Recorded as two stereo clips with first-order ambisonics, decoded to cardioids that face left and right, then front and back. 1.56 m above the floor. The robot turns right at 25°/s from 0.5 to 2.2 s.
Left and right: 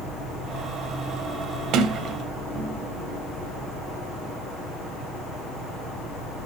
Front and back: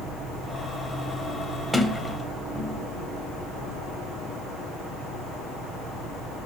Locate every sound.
1.7 s a sliding door: 85° right, 1.7 m; by 2.8 s 75° right, 1.7 m